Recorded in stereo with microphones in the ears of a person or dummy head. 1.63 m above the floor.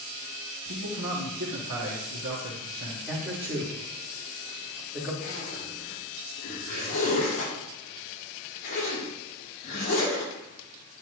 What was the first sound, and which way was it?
A man speaking, 65° right (ahead or behind).